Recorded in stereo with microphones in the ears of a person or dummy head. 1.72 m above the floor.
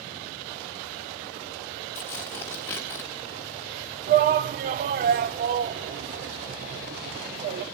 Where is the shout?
40° right (ahead or behind), 0.6 m.